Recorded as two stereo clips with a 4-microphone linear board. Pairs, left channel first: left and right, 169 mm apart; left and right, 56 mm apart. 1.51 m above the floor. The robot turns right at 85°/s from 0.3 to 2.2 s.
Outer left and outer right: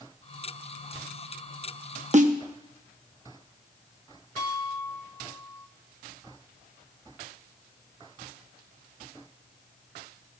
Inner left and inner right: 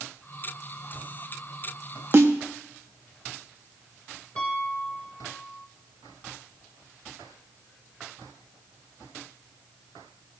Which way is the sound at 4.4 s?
25° left (ahead or behind).